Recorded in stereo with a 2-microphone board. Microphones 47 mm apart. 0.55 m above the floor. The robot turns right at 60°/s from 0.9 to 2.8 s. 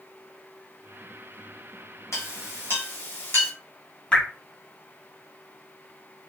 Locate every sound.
2.1 s a clink: 75° left (ahead or behind), 1.8 m; by 3.5 s 50° left (ahead or behind), 1.8 m
4.1 s dripping: 20° left (ahead or behind), 1.7 m